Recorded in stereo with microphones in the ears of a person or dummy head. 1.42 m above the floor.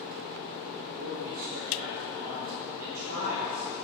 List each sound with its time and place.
1.0 s a man speaking: 85° right, 5.5 m